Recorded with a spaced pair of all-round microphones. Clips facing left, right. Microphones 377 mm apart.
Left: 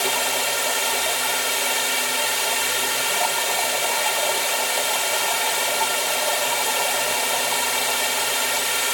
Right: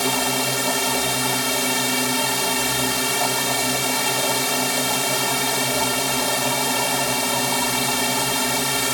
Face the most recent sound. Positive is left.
turn(degrees=-60)  # may be behind; listen again after turning